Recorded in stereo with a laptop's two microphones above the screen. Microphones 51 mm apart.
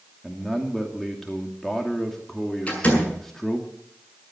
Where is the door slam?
25° left (ahead or behind), 7 m.